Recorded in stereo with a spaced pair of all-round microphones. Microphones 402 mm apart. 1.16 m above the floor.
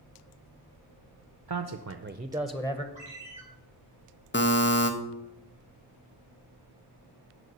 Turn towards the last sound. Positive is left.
turn(degrees=25)  # may be behind; listen again after turning